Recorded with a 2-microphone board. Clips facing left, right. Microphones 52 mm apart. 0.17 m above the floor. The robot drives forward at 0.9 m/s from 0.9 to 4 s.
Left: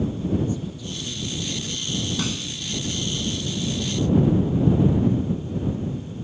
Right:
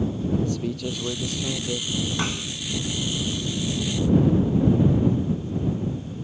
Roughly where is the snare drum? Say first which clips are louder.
Even; right.